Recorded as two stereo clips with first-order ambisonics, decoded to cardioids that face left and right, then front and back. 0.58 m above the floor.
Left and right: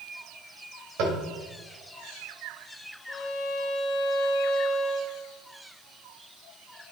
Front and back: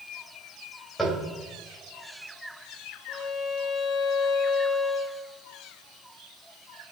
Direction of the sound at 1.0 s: 80° right.